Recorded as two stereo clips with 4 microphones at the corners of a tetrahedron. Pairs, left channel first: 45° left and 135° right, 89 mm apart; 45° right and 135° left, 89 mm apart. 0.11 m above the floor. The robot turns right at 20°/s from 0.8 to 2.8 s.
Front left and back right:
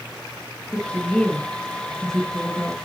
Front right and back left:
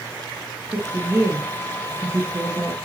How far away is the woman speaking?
About 1.3 m.